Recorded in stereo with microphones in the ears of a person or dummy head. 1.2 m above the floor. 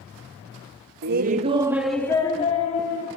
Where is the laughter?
50° right (ahead or behind), 0.6 m; by 3.1 s 40° left (ahead or behind), 1.1 m.